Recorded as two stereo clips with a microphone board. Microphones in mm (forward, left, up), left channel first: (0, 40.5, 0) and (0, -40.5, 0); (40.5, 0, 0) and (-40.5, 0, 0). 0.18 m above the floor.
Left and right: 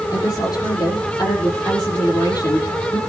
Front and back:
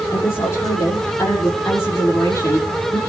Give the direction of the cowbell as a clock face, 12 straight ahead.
I don't hear a cowbell.